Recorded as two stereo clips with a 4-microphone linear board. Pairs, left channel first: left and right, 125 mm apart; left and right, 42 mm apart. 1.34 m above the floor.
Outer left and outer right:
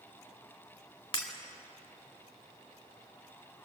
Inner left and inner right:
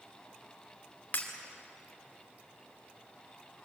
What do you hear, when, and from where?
1.1 s breaking glass: 45° left (ahead or behind), 2.5 m